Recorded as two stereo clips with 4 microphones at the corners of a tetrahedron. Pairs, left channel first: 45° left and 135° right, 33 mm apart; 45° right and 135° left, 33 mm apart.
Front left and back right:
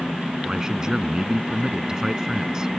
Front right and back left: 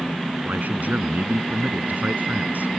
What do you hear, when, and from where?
0.5 s a man speaking: 155° left